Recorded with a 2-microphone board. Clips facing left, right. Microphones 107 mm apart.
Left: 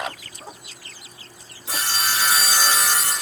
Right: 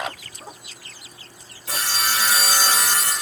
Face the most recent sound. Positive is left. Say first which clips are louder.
# even
turn(degrees=-75)  # may be behind; listen again after turning